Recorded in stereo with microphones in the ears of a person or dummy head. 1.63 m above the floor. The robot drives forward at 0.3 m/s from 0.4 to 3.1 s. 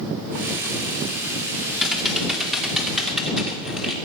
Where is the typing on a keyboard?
Centre (ahead or behind), 2 m.